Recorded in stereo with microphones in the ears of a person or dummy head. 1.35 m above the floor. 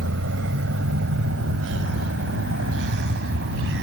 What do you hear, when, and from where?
0.0 s a vehicle: 70° right (ahead or behind); by 3.8 s 80° right